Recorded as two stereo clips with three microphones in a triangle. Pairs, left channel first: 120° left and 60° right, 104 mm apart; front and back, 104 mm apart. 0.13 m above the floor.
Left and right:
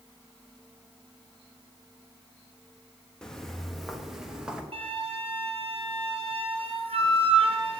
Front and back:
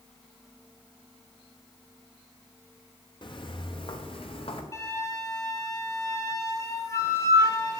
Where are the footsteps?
35° left, 2 m; by 4.6 s 20° left, 3 m.